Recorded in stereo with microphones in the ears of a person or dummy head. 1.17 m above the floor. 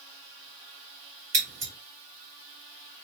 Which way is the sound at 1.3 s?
45° right (ahead or behind).